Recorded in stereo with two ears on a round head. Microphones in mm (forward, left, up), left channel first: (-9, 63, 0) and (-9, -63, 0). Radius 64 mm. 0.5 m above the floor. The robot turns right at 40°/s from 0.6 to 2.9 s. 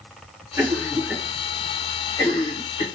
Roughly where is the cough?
Centre.